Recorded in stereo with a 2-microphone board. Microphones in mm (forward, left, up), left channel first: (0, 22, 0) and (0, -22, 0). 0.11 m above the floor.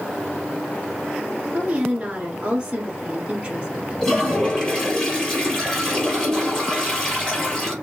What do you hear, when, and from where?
1.5 s a woman speaking: 20° right (ahead or behind), 1.4 m
4.0 s a toilet flushing: 10° left (ahead or behind), 2.5 m